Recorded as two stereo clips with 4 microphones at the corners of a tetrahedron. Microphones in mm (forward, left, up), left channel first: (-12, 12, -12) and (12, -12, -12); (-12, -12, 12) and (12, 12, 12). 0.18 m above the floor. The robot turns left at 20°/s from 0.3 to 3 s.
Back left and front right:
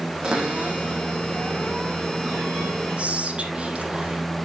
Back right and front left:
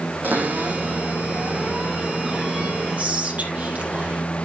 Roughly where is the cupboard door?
Ahead.